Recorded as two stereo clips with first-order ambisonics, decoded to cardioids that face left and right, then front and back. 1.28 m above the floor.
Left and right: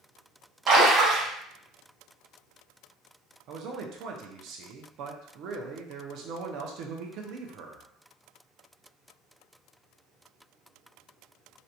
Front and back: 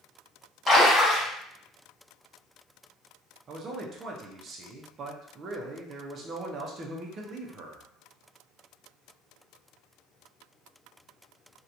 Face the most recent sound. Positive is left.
turn(degrees=-125)